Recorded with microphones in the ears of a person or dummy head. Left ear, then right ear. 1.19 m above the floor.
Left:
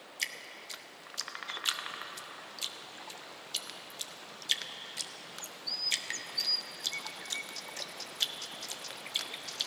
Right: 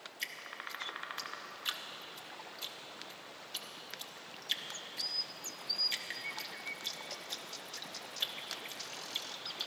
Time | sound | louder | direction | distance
0.2 | dripping | left 4 dB | 10° left (ahead or behind) | 0.6 m